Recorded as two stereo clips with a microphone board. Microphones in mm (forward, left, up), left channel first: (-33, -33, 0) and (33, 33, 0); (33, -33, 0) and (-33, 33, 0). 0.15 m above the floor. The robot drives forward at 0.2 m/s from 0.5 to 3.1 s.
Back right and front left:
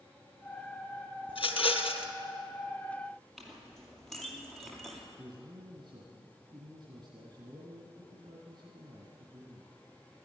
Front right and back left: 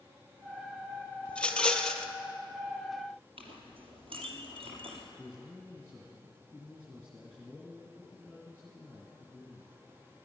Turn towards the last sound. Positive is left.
turn(degrees=55)